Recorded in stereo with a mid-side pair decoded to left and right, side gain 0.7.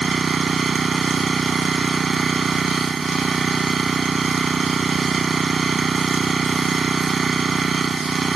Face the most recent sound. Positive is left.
turn(degrees=-25)